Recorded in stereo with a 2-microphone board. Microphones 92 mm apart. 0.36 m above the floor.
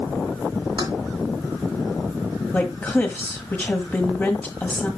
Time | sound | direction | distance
0.8 | keys jangling | 50° right (ahead or behind) | 2.5 m
2.5 | a woman speaking | 20° left (ahead or behind) | 1.6 m